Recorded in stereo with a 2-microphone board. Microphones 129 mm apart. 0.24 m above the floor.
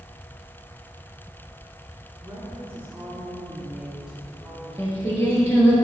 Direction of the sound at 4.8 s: 20° left (ahead or behind).